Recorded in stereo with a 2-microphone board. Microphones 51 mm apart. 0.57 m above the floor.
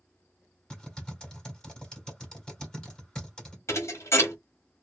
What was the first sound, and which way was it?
Typing on a keyboard, 15° left (ahead or behind).